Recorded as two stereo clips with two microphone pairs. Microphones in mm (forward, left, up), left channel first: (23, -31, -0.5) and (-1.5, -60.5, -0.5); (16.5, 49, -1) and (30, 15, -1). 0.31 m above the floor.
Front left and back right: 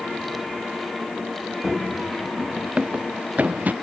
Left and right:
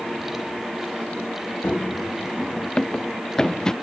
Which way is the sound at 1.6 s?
140° left.